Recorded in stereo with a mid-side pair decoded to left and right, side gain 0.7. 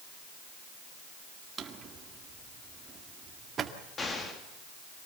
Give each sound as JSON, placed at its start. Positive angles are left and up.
{"t": 1.6, "sound": "a drawer", "azimuth_deg": -35, "distance_m": 2.0}
{"t": 4.0, "sound": "an explosion", "azimuth_deg": 25, "distance_m": 3.5}